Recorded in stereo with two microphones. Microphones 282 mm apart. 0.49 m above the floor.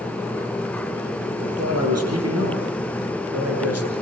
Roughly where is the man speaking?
Right.